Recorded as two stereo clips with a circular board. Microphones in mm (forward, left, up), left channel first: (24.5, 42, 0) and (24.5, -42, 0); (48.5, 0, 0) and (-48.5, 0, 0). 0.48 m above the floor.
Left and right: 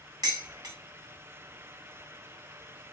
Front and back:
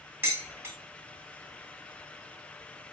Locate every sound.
0.2 s dishes clattering: 115° right, 1.3 m